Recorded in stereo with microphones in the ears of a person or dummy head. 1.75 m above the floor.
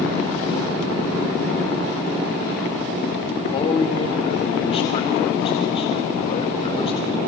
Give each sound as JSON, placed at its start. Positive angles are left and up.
{"t": 3.5, "sound": "a man speaking", "side_deg": 30, "distance_m": 3.5}